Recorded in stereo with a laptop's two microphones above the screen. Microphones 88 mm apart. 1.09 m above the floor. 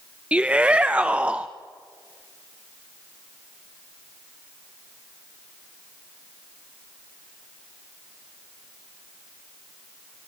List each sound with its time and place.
0.3 s a shout: 15° right (ahead or behind), 0.6 m